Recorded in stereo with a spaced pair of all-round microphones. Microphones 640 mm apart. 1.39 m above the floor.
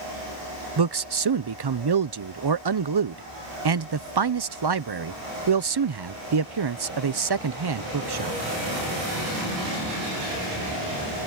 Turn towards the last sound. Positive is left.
turn(degrees=-40)  # may be behind; listen again after turning